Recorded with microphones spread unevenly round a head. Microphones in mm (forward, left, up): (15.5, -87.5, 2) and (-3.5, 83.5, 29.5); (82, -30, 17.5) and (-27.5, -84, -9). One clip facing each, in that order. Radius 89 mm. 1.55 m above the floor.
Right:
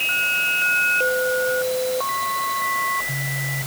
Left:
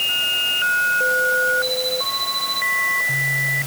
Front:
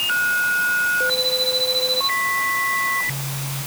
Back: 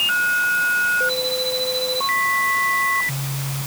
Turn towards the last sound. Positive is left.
No sound to turn to.